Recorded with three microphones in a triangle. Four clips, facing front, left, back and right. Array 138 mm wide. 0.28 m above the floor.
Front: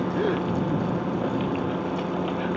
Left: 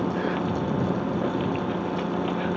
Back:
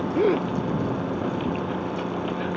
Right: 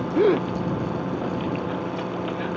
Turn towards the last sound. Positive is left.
turn(degrees=-115)